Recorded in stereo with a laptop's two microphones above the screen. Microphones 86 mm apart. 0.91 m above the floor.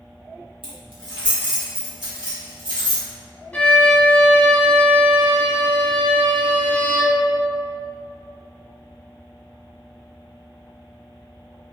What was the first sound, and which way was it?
Keys jangling, 75° right (ahead or behind).